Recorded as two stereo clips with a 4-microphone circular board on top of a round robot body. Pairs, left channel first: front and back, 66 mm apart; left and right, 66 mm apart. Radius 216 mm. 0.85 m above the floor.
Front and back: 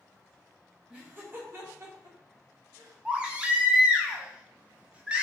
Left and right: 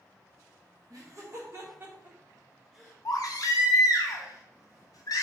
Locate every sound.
0.9 s laughter: 115° right, 1.5 m; by 2.9 s 175° right, 1.6 m
3.0 s a baby crying: 110° left, 0.7 m